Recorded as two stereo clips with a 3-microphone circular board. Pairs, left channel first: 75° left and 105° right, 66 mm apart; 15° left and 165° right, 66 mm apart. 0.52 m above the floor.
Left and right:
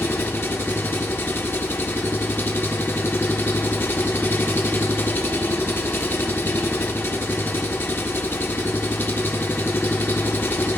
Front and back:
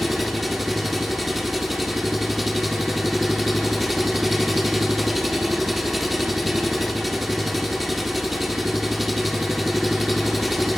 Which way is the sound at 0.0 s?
105° left.